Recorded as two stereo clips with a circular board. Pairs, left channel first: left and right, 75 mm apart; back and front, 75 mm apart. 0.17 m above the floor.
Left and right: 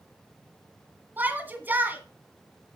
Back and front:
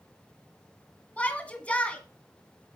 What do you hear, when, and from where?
1.2 s a shout: 125° right, 1.8 m